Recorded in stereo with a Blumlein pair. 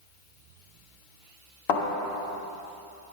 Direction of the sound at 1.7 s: 45° left.